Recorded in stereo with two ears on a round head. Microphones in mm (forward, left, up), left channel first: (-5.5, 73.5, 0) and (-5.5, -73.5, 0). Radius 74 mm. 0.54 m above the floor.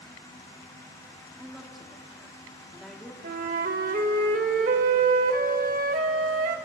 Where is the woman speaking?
Centre (ahead or behind), 1.0 m.